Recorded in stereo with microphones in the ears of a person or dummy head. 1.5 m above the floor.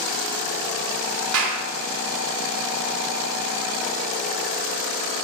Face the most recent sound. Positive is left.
turn(degrees=-80)